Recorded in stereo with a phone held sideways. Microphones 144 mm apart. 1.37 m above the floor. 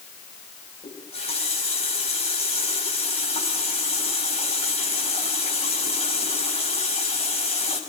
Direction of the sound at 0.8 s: 45° left (ahead or behind).